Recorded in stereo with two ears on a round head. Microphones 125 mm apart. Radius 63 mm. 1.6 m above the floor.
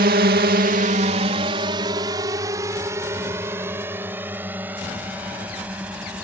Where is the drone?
80° right; by 6.2 s 10° right (ahead or behind).